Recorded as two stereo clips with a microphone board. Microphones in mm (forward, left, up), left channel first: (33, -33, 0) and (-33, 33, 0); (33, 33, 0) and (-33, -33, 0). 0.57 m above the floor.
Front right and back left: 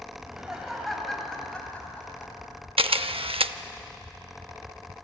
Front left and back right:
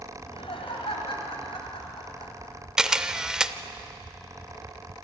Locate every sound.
0.2 s laughter: 55° left, 3.5 m; by 2.5 s 20° left, 5 m
2.8 s a camera shutter: 140° left, 0.5 m